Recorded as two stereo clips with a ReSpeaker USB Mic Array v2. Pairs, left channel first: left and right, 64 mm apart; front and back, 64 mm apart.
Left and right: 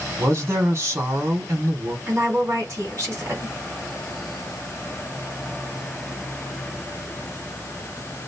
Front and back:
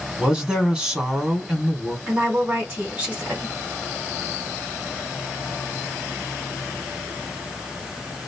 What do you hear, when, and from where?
0.2 s a woman speaking: 110° right, 1.7 m
2.1 s a woman speaking: 120° right, 2.5 m